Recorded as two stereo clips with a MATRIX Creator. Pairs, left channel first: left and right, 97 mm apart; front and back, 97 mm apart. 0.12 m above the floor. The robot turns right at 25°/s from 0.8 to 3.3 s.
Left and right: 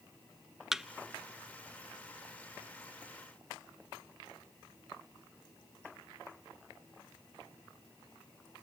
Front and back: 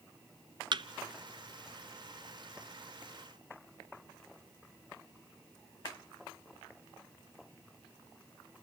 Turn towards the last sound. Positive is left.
turn(degrees=-110)